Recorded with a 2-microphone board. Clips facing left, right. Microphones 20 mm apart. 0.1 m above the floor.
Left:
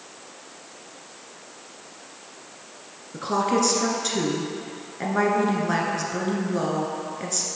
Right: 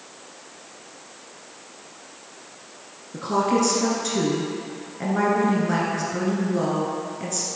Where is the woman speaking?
20° left (ahead or behind), 1.1 m.